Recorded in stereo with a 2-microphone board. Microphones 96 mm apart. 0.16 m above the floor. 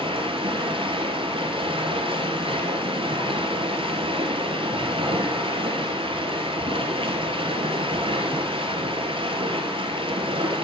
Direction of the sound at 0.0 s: 70° right (ahead or behind).